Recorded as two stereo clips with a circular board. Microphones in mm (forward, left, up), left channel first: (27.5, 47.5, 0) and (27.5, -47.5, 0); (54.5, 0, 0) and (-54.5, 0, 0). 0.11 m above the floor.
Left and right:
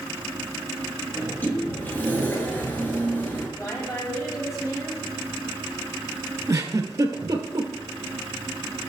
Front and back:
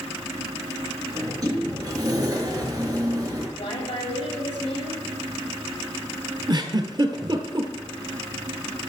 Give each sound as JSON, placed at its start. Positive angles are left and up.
{"t": 1.1, "sound": "a sliding door", "azimuth_deg": 150, "distance_m": 2.0}
{"t": 3.6, "sound": "a woman speaking", "azimuth_deg": 30, "distance_m": 3.5}
{"t": 6.5, "sound": "a giggle", "azimuth_deg": -140, "distance_m": 1.1}